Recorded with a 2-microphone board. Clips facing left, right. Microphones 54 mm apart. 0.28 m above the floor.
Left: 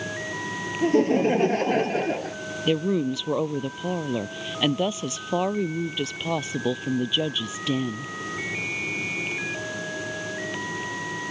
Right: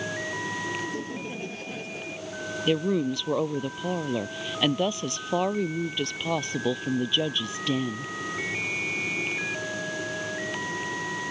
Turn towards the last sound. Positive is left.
turn(degrees=0)  # may be behind; listen again after turning